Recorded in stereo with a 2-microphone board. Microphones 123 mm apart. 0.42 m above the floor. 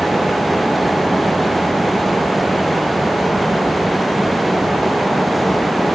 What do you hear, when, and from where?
Only background noise.